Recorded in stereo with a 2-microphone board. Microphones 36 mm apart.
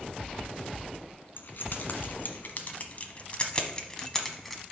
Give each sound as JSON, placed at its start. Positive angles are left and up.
{"t": 1.4, "sound": "keys jangling", "side_deg": 60, "distance_m": 1.5}